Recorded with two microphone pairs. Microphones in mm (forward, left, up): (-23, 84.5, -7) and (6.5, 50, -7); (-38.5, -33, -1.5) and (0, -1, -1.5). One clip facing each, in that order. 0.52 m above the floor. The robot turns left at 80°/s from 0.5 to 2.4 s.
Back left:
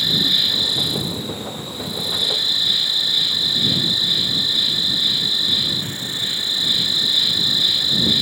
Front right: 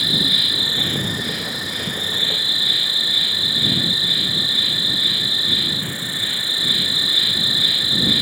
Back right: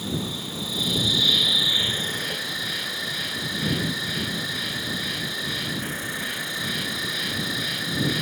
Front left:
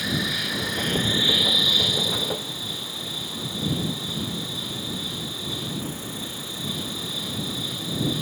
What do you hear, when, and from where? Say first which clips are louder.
0.0 s an insect: front right 1 dB, front left 4 dB; 30° left; by 8.2 s 120° right